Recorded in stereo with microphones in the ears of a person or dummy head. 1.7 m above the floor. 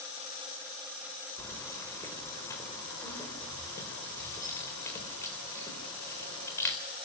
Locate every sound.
1.4 s keys jangling: 15° left (ahead or behind), 4 m